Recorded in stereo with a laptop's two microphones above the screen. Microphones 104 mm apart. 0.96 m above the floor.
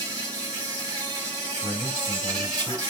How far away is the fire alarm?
No fire alarm in this recording.